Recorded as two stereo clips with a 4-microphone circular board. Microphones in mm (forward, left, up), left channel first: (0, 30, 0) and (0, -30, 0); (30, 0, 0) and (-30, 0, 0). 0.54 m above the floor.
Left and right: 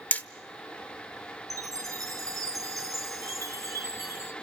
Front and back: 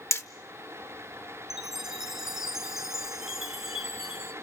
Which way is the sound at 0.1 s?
35° left.